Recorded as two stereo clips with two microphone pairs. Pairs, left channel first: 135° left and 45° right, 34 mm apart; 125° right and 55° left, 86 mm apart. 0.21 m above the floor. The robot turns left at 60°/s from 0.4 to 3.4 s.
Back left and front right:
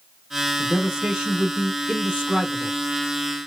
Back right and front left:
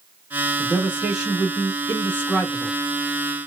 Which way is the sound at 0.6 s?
15° left.